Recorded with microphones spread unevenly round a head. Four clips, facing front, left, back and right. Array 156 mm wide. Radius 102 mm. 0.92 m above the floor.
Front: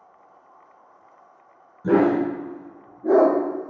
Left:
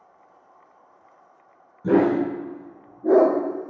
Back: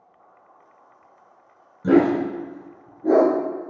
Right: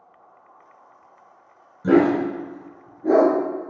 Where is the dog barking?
150° left, 3 m; by 3.3 s 135° left, 4 m.